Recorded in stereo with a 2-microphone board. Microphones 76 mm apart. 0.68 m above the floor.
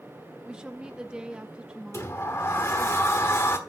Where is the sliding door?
35° left (ahead or behind), 1.2 m.